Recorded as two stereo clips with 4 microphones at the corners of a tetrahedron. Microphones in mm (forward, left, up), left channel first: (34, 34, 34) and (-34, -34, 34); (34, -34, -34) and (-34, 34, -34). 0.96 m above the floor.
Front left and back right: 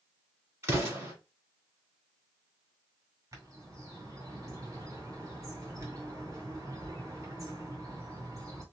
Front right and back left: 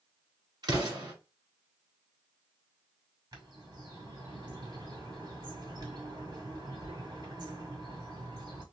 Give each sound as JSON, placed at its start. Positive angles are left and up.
{"t": 0.6, "sound": "an explosion", "azimuth_deg": 170, "distance_m": 1.7}
{"t": 3.3, "sound": "a bird", "azimuth_deg": 175, "distance_m": 1.8}